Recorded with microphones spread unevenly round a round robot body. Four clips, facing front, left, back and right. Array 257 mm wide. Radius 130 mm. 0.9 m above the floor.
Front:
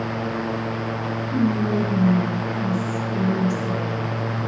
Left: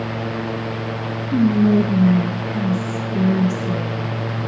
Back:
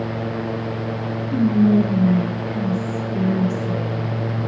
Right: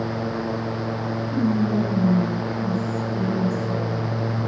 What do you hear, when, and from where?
1.3 s whispering: 95° left, 0.5 m